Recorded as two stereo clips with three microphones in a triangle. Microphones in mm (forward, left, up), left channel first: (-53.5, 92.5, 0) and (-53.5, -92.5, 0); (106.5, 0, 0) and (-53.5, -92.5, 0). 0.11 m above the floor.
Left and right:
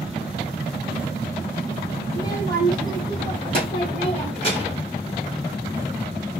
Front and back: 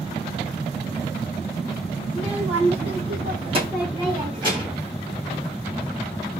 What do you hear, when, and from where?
2.1 s a child speaking: 160° left, 1.8 m; by 4.8 s 145° left, 3 m